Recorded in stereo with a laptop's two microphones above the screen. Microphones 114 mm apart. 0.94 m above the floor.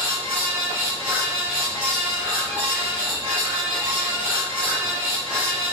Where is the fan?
10° right (ahead or behind), 1.8 m.